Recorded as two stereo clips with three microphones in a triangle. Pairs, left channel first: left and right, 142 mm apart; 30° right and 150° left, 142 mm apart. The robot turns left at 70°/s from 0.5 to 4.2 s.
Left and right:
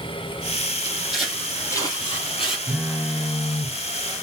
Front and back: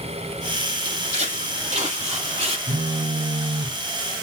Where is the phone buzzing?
Straight behind, 0.6 m; by 3.7 s 105° left, 0.6 m.